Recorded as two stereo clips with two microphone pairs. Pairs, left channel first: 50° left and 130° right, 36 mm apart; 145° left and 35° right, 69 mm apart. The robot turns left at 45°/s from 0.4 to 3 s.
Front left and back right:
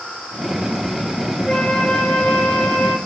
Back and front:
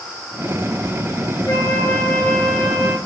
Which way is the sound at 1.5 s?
120° left.